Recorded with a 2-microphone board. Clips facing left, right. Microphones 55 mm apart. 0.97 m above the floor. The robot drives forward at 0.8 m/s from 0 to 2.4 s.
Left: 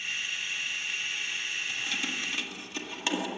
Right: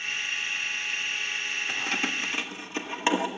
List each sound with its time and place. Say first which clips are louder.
1.7 s keys jangling: right 4 dB; 55° right (ahead or behind), 0.8 m; by 3.3 s 35° right (ahead or behind), 1.2 m